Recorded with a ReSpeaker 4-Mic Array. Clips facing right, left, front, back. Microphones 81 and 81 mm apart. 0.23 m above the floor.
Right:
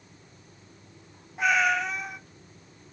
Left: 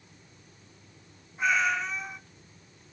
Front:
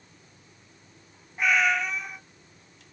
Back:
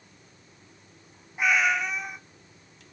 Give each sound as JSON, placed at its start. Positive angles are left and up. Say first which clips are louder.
{"t": 1.4, "sound": "a cat meowing", "louder": "right 3 dB, even", "azimuth_deg": -95, "distance_m": 1.2}